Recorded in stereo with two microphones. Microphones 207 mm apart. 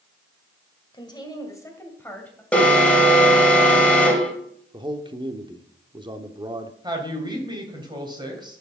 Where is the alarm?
5° left (ahead or behind), 2 m.